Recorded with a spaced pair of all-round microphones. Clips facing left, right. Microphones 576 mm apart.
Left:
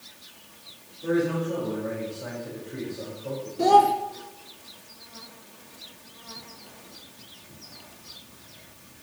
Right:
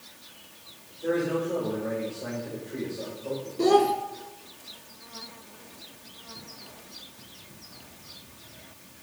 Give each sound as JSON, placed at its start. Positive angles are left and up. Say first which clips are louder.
{"t": 1.0, "sound": "a man speaking", "louder": "left 2 dB", "side_deg": 25, "distance_m": 4.5}
{"t": 3.6, "sound": "a child speaking", "louder": "right 1 dB", "side_deg": 10, "distance_m": 1.1}